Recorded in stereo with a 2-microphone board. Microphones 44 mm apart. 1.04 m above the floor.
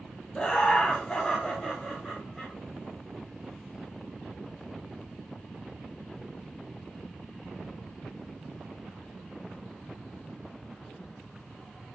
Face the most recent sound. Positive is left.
turn(degrees=10)  # may be behind; listen again after turning